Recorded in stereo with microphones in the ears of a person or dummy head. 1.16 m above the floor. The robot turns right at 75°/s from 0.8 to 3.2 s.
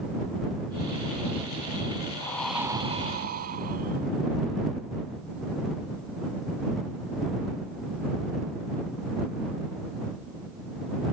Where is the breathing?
155° left; by 4.1 s 130° right.